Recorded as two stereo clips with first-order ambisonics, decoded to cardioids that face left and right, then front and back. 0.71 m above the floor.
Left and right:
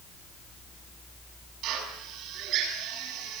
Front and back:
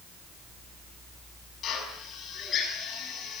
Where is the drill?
55° right, 7 m.